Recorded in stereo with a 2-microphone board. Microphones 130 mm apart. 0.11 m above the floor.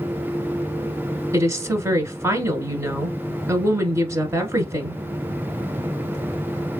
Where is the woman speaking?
20° right (ahead or behind), 1.2 m.